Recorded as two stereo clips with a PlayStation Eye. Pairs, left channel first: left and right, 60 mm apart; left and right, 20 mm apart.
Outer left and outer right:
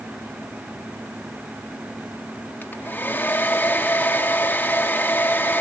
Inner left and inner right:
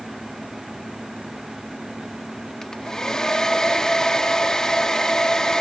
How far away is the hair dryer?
About 0.6 m.